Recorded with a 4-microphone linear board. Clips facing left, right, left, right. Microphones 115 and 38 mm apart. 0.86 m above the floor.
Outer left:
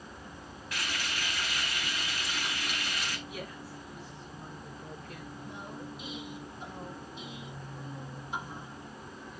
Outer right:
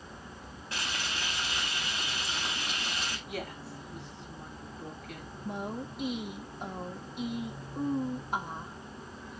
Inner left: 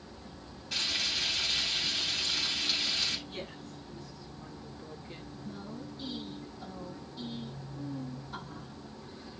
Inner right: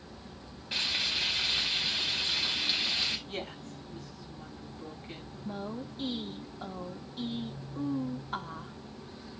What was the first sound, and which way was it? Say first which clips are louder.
Frying: even, inner right 1 dB; 30° right (ahead or behind).